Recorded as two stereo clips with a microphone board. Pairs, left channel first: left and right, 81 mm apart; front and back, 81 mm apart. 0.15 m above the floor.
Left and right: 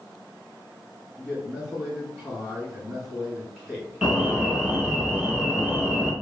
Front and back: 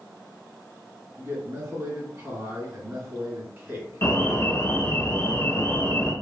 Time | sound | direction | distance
1.2 | a man speaking | straight behind | 1.9 m
4.0 | an alarm | 10° right | 0.8 m